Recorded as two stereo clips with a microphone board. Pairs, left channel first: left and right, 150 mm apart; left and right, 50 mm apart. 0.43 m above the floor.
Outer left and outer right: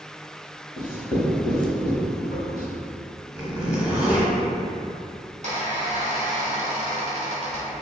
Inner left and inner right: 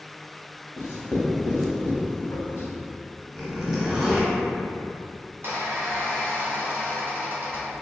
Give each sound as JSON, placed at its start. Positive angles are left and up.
{"t": 0.8, "sound": "writing", "side_deg": 60, "distance_m": 0.8}
{"t": 3.4, "sound": "a zipper", "side_deg": -10, "distance_m": 0.8}
{"t": 5.3, "sound": "a squeak", "side_deg": -50, "distance_m": 0.8}